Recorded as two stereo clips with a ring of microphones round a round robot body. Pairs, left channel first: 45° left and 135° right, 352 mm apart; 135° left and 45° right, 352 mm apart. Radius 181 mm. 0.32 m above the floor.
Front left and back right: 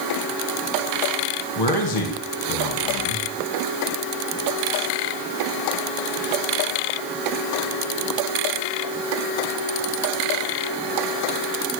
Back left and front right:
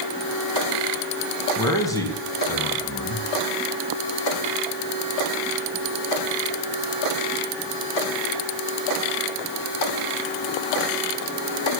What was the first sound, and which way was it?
A man speaking, 55° left.